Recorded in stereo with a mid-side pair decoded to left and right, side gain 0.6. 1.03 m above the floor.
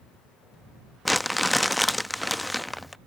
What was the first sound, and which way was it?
Crumpling, 5° left.